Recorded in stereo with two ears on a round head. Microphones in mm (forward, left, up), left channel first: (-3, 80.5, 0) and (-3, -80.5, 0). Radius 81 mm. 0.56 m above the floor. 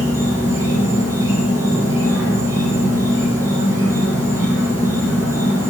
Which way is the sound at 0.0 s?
15° right (ahead or behind).